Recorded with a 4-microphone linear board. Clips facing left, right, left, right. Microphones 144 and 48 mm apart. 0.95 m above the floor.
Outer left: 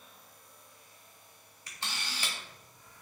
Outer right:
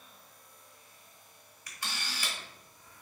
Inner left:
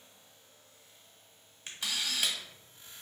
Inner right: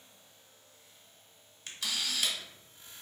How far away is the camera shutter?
About 1.5 m.